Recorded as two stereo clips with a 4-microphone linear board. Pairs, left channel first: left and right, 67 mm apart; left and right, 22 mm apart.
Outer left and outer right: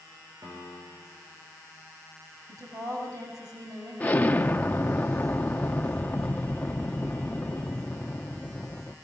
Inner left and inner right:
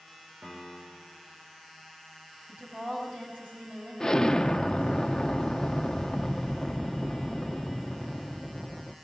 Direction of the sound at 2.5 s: 70° right (ahead or behind).